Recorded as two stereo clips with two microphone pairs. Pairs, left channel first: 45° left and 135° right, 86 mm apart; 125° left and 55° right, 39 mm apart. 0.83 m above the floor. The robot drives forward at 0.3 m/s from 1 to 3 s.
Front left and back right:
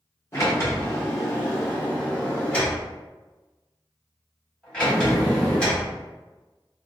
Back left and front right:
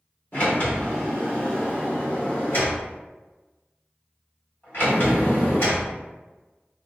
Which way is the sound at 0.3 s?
100° left.